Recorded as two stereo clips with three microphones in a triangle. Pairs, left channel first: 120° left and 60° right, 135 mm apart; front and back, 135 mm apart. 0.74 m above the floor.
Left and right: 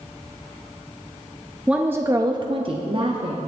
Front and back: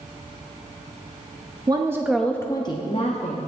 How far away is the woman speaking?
About 0.6 m.